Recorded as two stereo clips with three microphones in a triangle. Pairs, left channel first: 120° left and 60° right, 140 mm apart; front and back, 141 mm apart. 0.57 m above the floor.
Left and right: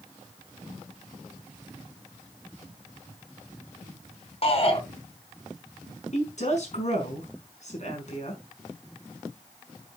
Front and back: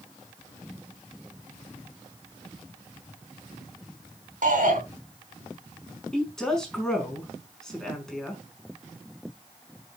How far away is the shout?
About 4 m.